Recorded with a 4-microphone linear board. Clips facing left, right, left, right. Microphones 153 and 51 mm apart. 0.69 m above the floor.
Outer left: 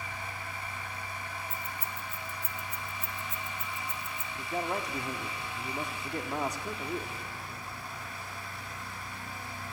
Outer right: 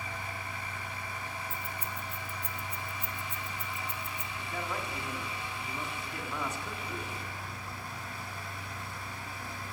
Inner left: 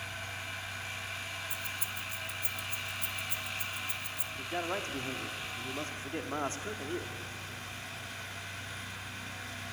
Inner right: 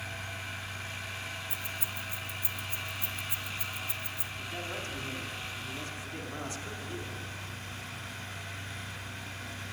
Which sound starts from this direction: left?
A man speaking, at 4.3 s.